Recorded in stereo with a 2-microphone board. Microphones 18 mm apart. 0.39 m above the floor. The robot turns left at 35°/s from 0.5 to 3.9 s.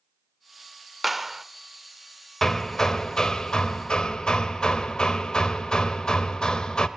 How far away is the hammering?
About 1.1 m.